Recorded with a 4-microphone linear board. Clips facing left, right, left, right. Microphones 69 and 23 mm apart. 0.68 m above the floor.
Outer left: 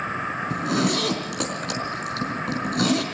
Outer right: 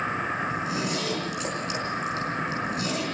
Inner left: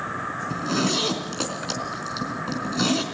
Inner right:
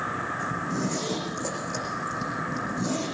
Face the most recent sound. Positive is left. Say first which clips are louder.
# outer left 5 dB, inner left 5 dB
turn(degrees=70)  # may be behind; listen again after turning